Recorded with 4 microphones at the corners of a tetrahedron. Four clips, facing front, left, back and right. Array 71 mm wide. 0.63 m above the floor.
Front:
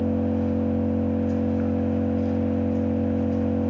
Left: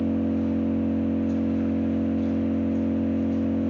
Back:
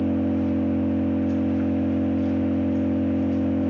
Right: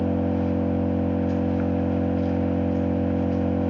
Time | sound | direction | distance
0.0 | an engine running | 85° right | 1.3 m